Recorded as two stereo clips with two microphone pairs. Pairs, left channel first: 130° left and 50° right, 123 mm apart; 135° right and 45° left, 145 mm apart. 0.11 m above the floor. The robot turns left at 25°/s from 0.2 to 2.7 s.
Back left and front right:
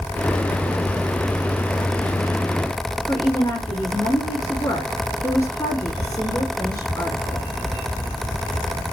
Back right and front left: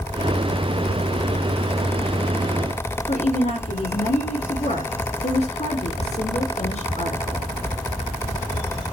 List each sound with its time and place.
3.1 s a woman speaking: 165° right, 4.5 m